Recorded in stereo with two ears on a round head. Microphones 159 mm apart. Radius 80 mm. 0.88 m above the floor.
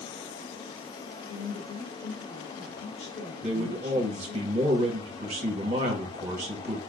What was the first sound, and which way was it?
A woman speaking, 65° left (ahead or behind).